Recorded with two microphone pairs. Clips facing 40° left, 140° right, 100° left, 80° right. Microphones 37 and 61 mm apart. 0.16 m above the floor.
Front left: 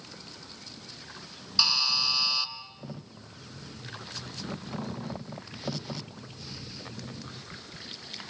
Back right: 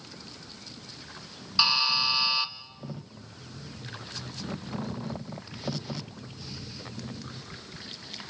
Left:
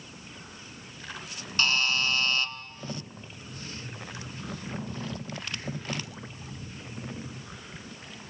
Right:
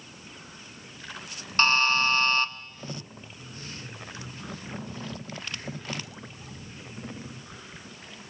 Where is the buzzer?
85° right, 1.4 m.